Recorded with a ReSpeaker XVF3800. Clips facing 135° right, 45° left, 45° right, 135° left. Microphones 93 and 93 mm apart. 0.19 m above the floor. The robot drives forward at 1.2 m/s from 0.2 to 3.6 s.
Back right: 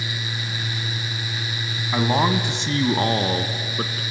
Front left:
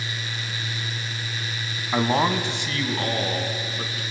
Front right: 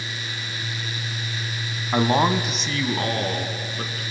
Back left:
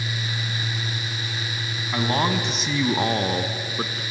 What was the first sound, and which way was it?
A man speaking, 30° right.